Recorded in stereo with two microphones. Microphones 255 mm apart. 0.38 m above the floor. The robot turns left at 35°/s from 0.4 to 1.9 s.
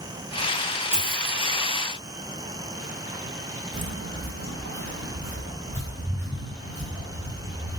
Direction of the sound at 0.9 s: 5° left (ahead or behind).